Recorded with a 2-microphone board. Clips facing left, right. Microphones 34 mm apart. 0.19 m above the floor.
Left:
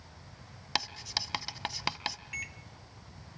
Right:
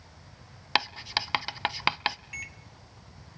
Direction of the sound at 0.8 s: 30° right (ahead or behind).